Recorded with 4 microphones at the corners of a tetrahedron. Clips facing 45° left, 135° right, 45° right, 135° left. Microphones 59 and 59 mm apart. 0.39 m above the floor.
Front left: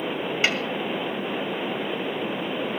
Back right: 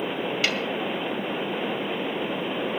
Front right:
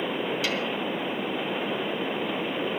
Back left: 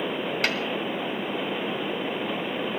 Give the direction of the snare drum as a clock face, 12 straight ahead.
8 o'clock.